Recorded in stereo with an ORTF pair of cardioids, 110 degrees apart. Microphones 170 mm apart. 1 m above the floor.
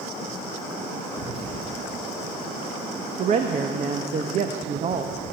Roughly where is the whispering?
Ahead right.